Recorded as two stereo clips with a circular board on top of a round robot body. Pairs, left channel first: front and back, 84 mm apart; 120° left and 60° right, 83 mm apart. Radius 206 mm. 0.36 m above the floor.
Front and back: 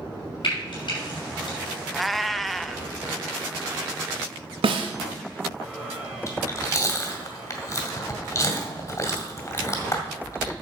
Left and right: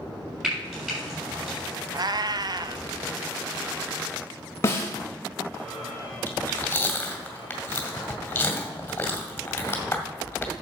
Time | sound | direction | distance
0.4 | frying | 20° left | 6 m
1.9 | a cat meowing | 90° right | 0.7 m
4.6 | a snare drum | straight behind | 1.4 m
6.3 | chewing | 50° left | 2 m